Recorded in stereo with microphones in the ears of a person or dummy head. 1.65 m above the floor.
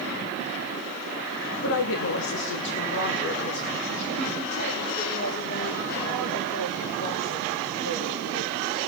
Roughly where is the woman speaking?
Left.